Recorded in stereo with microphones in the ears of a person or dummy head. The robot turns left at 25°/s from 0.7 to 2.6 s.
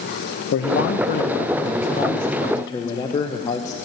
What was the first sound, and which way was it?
A man speaking, 70° left.